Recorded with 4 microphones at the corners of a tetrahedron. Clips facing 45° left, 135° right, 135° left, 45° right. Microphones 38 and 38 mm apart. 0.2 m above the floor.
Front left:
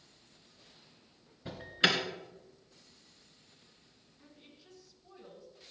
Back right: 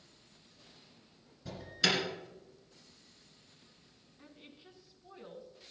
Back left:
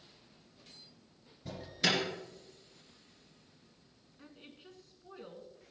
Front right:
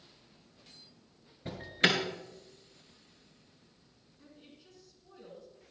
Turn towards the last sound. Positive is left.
turn(degrees=170)